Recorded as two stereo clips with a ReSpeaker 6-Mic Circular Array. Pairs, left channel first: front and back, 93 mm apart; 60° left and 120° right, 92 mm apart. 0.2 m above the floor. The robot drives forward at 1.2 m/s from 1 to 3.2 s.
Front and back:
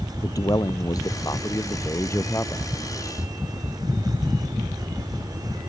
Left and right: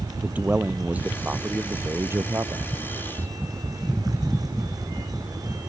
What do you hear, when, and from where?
0.2 s a man speaking: 50° right; by 2.8 s 65° right